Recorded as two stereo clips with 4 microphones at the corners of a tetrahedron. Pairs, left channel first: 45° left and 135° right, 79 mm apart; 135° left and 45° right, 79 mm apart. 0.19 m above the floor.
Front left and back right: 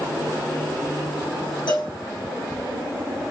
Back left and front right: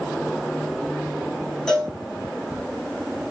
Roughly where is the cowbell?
Ahead left.